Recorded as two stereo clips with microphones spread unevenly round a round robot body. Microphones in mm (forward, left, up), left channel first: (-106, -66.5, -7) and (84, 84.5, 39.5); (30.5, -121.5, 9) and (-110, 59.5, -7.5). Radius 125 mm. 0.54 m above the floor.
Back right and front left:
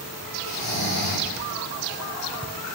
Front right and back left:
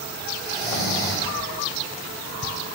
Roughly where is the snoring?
Behind right.